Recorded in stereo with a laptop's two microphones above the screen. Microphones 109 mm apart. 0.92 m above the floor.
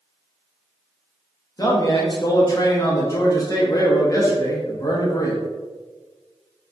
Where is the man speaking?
30° left (ahead or behind), 0.6 m.